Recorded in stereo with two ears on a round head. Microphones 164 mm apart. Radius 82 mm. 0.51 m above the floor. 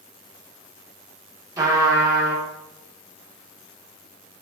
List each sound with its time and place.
1.6 s a trumpet: 20° right (ahead or behind), 0.6 m